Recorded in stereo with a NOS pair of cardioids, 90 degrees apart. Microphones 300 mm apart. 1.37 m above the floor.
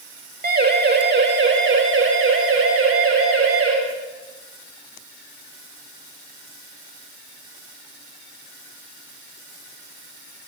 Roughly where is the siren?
Ahead right.